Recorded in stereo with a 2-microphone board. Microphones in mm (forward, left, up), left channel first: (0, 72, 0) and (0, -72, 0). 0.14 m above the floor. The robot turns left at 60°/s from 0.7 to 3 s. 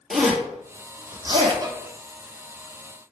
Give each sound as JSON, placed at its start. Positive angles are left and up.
{"t": 0.1, "sound": "a zipper", "side_deg": 0, "distance_m": 1.1}
{"t": 1.6, "sound": "a violin", "side_deg": -30, "distance_m": 0.7}